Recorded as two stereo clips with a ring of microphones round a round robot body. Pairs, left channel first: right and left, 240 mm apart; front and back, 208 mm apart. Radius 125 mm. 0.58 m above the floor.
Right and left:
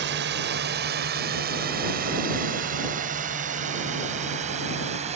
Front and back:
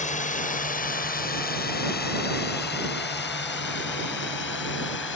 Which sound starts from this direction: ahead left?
A drone, at 0.0 s.